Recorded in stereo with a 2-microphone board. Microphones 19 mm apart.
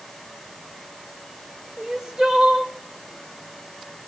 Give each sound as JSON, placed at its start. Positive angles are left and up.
{"t": 1.8, "sound": "crying", "side_deg": -35, "distance_m": 1.7}